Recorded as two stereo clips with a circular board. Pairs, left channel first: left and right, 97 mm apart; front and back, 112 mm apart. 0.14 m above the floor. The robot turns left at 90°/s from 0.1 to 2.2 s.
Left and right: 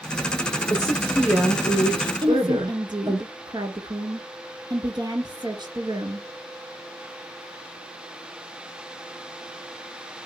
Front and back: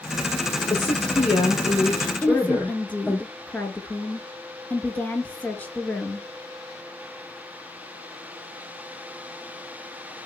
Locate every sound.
0.7 s a woman speaking: 55° left, 6 m; by 3.2 s 80° right, 6 m
2.2 s a woman speaking: 75° right, 1.7 m